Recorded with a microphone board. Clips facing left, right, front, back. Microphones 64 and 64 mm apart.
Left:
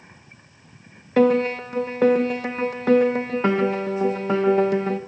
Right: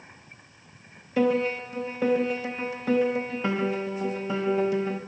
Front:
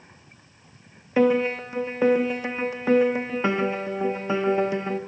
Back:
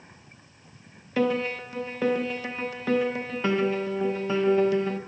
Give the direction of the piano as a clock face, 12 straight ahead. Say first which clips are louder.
Left 6 dB, front 5 dB; 10 o'clock.